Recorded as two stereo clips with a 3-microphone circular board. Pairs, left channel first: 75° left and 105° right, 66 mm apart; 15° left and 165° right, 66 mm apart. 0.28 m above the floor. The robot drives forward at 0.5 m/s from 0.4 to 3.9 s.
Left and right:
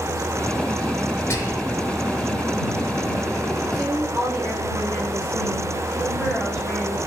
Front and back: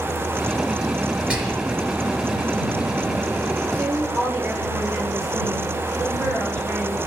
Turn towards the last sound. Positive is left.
turn(degrees=150)